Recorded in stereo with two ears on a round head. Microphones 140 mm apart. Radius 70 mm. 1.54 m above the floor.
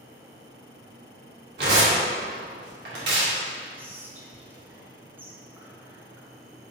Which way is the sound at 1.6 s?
80° right.